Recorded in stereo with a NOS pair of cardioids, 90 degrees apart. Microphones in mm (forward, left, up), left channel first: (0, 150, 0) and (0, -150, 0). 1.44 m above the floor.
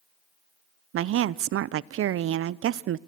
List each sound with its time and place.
0.9 s a woman speaking: 50° right, 0.5 m